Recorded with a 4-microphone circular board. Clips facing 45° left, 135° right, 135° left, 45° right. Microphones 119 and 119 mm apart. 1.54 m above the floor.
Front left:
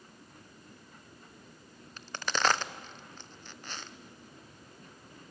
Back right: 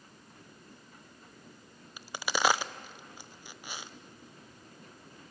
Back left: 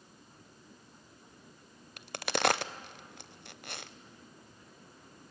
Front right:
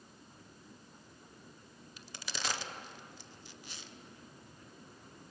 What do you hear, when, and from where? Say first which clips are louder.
2.0 s a crack: back right 1 dB, back left 13 dB; 145° left, 0.6 m